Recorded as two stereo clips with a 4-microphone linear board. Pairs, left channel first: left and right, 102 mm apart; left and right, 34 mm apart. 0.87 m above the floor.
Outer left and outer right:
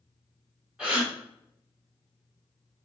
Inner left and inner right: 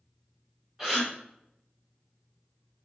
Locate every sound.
0.8 s a gasp: 10° right (ahead or behind), 3 m